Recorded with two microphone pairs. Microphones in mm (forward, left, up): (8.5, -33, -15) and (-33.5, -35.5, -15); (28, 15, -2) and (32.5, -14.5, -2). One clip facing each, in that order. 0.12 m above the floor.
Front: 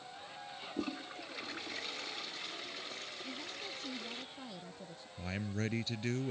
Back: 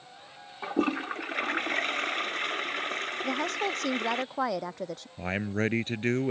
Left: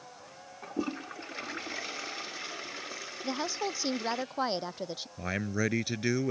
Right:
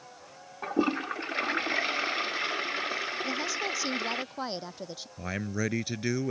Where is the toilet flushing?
140° right.